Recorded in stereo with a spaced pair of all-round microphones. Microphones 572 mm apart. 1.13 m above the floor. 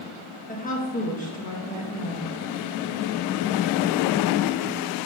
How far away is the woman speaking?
About 1.3 m.